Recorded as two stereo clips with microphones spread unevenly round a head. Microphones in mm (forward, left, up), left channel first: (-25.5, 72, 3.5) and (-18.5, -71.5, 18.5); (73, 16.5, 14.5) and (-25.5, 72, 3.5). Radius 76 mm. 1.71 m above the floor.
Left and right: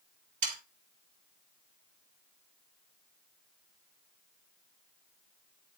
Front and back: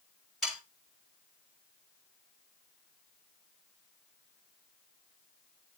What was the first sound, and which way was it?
Sawing, 115° right.